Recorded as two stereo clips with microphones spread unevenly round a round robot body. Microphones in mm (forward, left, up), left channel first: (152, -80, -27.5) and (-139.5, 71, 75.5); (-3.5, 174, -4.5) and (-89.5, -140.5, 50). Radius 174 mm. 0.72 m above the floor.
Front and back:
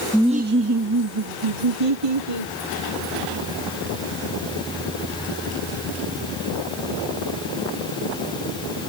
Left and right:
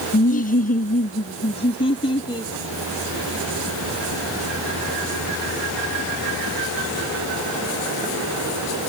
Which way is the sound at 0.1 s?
45° left.